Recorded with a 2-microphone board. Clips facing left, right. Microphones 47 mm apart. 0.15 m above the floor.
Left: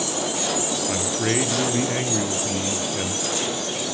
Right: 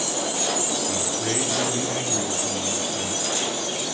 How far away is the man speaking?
About 2.5 m.